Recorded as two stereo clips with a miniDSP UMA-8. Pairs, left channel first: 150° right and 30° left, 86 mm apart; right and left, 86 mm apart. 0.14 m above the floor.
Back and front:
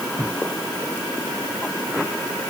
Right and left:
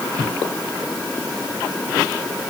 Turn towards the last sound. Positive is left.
No sound to turn to.